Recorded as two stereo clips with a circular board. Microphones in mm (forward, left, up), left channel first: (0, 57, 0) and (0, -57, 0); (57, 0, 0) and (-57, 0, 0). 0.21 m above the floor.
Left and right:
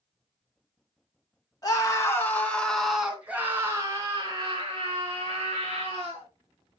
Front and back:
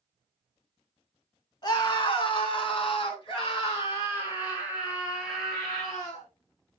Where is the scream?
40° left, 3 m; by 6.3 s 65° right, 5 m.